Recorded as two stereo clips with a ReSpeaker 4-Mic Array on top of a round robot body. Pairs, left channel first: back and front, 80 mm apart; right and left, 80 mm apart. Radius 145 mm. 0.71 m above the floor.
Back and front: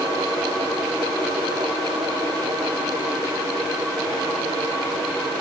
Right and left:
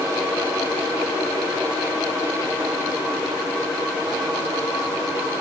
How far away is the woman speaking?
No woman speaking in this recording.